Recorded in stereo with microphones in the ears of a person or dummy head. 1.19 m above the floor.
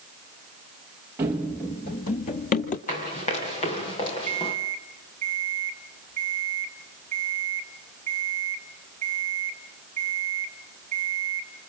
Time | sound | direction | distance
1.2 | running footsteps | 10° right (ahead or behind) | 1.5 m
2.9 | running footsteps | 30° left (ahead or behind) | 5 m
4.3 | an alarm clock | 40° right (ahead or behind) | 3.5 m